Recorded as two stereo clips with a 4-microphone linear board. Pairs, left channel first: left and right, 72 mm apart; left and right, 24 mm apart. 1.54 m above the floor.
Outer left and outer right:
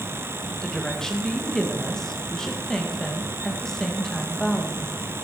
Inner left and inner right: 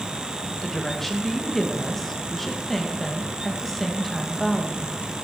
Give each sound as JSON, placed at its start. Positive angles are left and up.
{"t": 0.6, "sound": "a woman speaking", "side_deg": 10, "distance_m": 1.9}